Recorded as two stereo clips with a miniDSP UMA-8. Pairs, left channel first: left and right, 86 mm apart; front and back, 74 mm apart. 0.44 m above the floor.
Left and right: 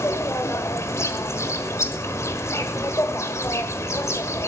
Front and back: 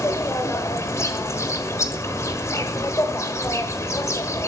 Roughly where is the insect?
Ahead left.